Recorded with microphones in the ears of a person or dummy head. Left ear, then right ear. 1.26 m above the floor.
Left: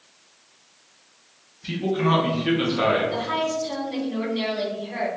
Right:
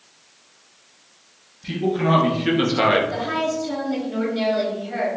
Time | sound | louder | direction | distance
1.6 | a man speaking | right 2 dB | 5° left (ahead or behind) | 1.1 m
3.1 | a woman speaking | right 1 dB | centre (ahead or behind) | 0.9 m